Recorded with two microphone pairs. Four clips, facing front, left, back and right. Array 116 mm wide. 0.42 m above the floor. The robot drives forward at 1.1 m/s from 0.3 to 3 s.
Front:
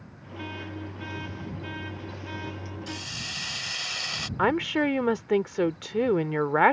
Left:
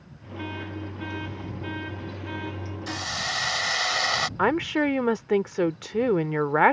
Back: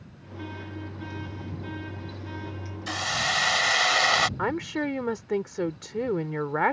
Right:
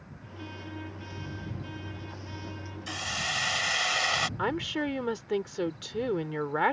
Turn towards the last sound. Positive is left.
turn(degrees=55)